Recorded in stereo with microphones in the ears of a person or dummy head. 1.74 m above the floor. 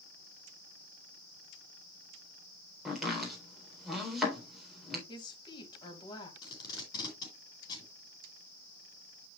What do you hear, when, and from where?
2.9 s chopping: centre (ahead or behind), 4 m
5.1 s a woman speaking: 30° left (ahead or behind), 2.5 m
6.4 s tape being pulled: 25° left (ahead or behind), 4.5 m